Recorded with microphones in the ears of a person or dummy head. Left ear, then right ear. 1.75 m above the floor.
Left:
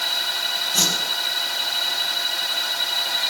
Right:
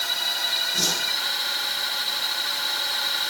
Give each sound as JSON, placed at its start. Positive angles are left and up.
{"t": 0.7, "sound": "a whoosh", "side_deg": 30, "distance_m": 7.5}